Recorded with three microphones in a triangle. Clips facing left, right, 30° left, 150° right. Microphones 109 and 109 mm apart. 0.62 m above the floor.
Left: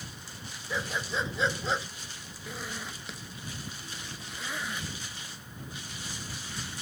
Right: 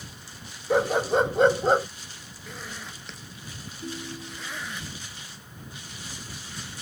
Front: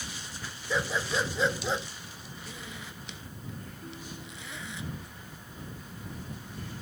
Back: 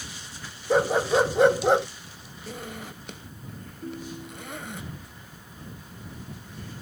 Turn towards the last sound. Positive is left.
turn(degrees=-105)